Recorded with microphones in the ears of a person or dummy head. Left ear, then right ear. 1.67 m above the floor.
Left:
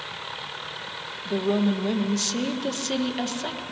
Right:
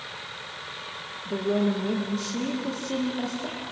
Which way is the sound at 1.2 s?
35° left (ahead or behind).